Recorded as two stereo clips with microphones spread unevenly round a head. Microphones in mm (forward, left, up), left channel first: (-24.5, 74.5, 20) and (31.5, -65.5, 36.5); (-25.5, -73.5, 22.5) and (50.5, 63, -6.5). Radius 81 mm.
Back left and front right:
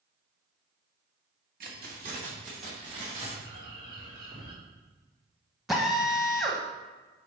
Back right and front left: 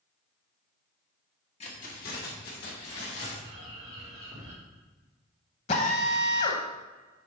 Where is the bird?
5° right, 3 m.